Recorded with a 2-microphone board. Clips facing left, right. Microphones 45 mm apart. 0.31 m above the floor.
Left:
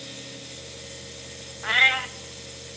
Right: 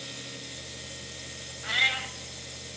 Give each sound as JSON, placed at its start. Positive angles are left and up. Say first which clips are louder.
{"t": 1.6, "sound": "a cat meowing", "louder": "left 7 dB", "side_deg": 35, "distance_m": 0.7}